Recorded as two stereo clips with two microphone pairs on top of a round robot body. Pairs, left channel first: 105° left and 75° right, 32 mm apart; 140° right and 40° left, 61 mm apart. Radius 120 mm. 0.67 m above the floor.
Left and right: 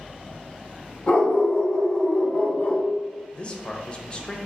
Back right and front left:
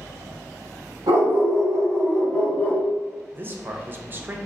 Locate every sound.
1.1 s a dog barking: 70° left, 0.9 m; by 2.8 s 150° left, 0.8 m
3.3 s a man speaking: 65° left, 0.6 m